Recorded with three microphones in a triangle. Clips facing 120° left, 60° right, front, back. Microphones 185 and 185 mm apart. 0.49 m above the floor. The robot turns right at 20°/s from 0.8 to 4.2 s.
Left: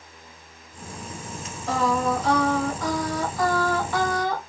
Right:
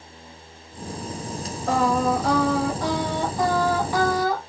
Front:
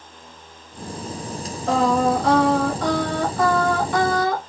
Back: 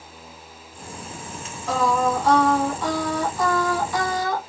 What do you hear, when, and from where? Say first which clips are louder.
1.7 s singing: right 2 dB, front 3 dB; 30° right, 1.6 m; by 4.4 s 25° left, 1.6 m